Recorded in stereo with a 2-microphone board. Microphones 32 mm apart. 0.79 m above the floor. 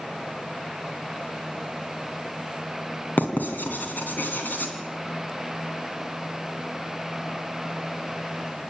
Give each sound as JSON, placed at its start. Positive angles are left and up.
{"t": 3.2, "sound": "writing", "side_deg": 85, "distance_m": 3.0}